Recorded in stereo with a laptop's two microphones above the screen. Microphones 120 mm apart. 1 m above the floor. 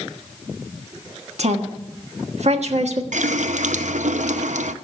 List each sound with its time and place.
1.4 s a woman speaking: 65° right (ahead or behind), 1.4 m
3.1 s a running tap: 85° right, 0.6 m